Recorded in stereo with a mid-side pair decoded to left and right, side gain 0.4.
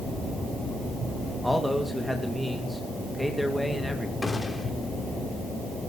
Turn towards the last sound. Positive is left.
turn(degrees=20)